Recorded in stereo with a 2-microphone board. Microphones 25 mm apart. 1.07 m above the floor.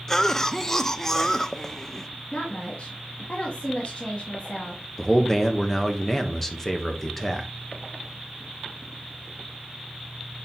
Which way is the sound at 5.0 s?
10° left (ahead or behind).